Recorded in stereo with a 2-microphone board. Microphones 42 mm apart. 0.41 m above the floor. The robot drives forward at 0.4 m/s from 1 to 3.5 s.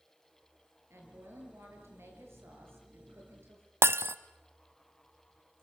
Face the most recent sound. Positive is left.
turn(degrees=-85)